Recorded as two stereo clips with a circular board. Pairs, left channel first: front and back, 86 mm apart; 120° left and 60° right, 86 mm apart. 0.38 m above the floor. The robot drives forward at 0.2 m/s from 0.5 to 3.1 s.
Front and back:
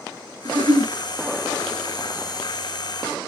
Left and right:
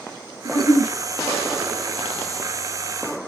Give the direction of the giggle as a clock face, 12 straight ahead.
7 o'clock.